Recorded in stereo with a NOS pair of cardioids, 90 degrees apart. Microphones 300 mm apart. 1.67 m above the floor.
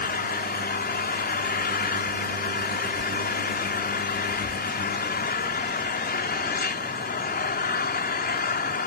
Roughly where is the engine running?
Ahead left.